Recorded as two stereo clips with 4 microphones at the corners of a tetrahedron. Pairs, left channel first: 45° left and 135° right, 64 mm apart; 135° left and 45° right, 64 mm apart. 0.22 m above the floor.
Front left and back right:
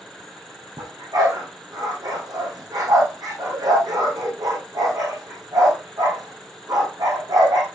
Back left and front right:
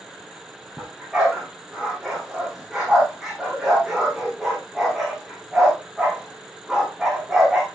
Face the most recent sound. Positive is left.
turn(degrees=-130)